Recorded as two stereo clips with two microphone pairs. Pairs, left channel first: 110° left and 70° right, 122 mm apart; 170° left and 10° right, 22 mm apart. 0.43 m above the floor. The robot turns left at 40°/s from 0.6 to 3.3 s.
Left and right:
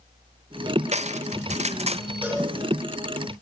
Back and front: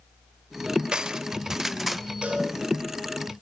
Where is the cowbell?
5° left, 5 m; by 2.5 s 5° right, 5 m.